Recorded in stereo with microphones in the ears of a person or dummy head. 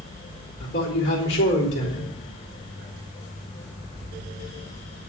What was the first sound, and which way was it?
A man speaking, 65° left (ahead or behind).